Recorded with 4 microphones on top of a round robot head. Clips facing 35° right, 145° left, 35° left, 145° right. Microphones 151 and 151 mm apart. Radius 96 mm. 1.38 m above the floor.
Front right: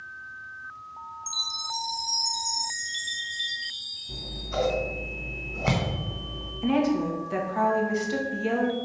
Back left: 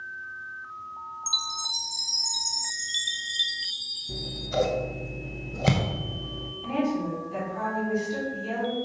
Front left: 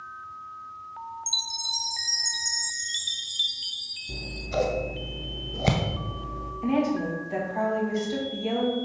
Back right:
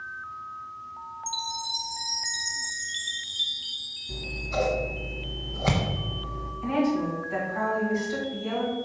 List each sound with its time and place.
1.3 s a chime: 85° left, 0.6 m
4.1 s scissors: 95° left, 0.7 m
6.6 s a woman speaking: 30° right, 2 m